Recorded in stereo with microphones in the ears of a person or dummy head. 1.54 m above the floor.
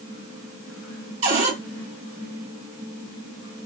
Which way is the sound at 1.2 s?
40° right (ahead or behind).